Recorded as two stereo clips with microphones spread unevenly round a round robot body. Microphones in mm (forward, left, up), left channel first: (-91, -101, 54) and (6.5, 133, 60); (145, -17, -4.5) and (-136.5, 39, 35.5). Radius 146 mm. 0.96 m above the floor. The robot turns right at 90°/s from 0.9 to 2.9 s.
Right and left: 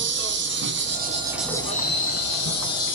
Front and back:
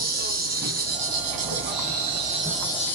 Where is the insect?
110° left, 2 m; by 3.0 s 70° right, 2 m.